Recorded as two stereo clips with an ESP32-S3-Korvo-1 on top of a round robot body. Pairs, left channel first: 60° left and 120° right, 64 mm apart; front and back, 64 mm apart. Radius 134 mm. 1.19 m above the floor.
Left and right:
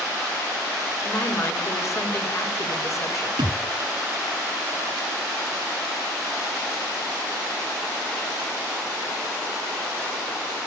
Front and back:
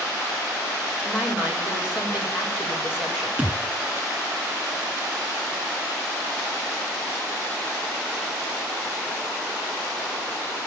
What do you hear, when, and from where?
1.0 s a woman speaking: 105° left, 4.5 m
3.4 s a thud: 115° right, 1.8 m